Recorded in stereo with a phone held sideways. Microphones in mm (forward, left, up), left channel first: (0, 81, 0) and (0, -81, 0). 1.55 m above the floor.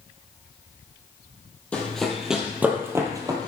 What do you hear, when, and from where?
1.7 s running footsteps: 10° left (ahead or behind), 1.9 m; by 3.5 s 25° right (ahead or behind), 1.8 m